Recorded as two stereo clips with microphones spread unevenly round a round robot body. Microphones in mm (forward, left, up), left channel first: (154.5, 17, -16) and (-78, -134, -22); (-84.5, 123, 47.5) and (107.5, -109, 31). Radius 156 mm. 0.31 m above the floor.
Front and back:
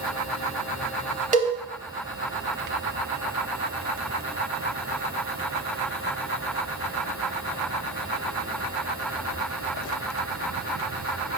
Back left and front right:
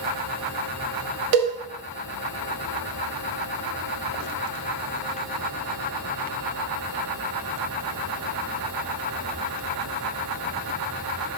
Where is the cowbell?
85° right, 0.9 m.